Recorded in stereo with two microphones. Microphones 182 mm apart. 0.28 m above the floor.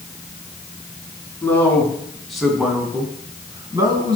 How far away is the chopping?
I don't hear chopping.